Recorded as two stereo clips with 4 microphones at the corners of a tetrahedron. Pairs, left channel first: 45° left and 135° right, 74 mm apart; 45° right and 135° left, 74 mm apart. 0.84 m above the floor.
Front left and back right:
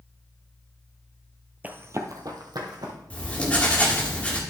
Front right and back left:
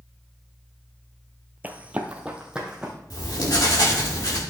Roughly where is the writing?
Ahead right.